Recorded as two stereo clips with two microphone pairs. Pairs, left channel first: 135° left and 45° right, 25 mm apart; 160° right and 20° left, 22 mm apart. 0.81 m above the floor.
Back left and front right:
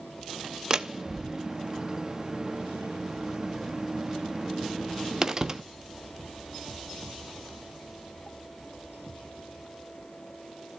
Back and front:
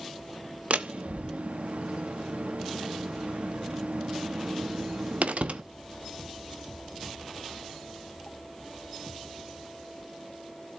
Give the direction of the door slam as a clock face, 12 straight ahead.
11 o'clock.